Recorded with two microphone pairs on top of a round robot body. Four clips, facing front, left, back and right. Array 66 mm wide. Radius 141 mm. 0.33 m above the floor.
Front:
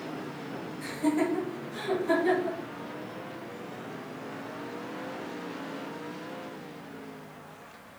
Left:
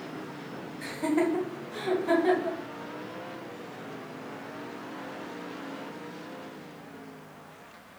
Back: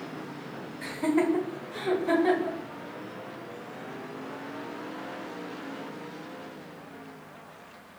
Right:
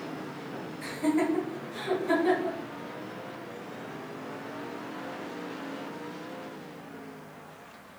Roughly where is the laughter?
Behind left.